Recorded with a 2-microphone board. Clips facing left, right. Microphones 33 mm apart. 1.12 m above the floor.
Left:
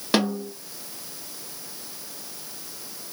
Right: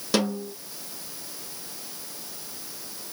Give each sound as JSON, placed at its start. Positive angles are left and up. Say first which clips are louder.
{"t": 0.1, "sound": "a snare drum", "louder": "left 2 dB", "side_deg": 25, "distance_m": 2.0}